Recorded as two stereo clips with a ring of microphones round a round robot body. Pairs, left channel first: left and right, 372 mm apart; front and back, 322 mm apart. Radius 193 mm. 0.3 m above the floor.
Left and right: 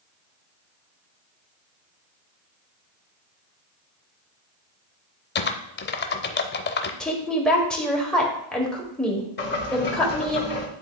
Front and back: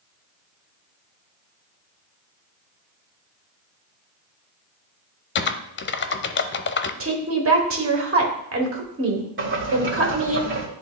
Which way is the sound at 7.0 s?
175° left.